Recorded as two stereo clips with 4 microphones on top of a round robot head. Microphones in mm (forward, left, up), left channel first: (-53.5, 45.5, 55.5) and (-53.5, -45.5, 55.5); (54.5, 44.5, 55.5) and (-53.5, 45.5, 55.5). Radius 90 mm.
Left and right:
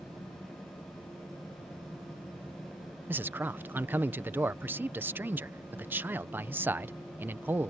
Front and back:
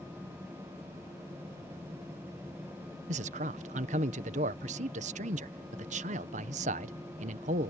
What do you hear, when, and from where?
3.1 s a man speaking: 160° right